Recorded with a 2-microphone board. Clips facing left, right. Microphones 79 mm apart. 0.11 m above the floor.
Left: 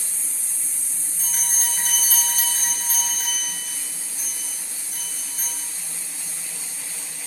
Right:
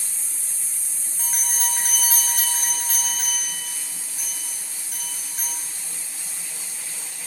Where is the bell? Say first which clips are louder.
Right 2 dB; 50° right (ahead or behind), 7.5 m.